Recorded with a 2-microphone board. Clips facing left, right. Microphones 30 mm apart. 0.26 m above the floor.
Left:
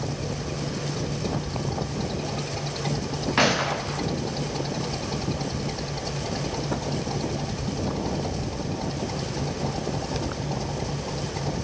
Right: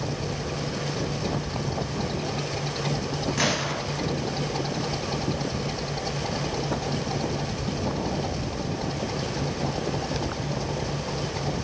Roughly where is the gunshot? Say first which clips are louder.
Left 6 dB; left.